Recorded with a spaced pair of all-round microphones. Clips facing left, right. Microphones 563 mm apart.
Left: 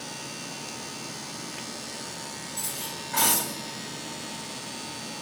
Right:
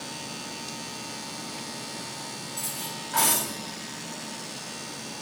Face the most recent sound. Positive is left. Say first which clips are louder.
# even
turn(degrees=65)  # may be behind; listen again after turning